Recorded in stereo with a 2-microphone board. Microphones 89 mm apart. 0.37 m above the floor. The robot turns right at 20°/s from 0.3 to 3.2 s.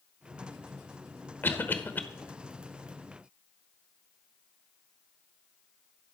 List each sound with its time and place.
1.4 s a cough: 25° left (ahead or behind), 1.0 m